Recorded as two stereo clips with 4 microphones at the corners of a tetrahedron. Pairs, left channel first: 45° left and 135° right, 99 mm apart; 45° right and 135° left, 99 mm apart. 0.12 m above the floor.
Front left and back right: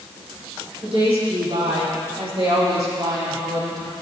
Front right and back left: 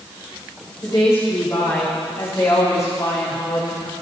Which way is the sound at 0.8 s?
110° right.